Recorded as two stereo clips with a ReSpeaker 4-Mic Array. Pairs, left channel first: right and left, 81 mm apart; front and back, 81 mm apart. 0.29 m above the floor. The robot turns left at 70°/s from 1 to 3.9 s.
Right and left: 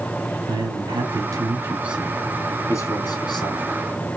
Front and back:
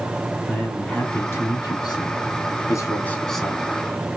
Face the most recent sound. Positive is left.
turn(degrees=-125)